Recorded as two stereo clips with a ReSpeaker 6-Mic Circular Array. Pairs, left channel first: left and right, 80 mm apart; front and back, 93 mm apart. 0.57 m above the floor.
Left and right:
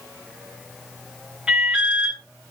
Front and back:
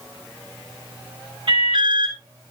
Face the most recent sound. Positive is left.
turn(degrees=-165)